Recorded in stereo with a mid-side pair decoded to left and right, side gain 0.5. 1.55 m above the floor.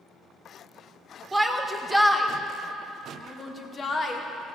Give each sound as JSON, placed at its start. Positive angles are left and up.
{"t": 1.3, "sound": "a shout", "azimuth_deg": -10, "distance_m": 1.6}